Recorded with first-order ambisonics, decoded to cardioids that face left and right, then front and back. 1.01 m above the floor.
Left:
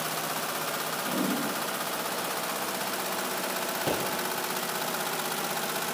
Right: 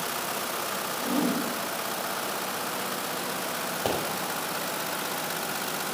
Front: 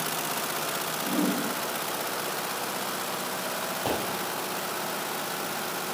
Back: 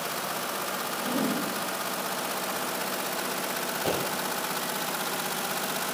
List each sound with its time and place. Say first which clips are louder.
1.0 s a whoosh: right 4 dB, front 1 dB; 125° right, 6 m
3.9 s a pop: right 2 dB, even; 90° right, 5 m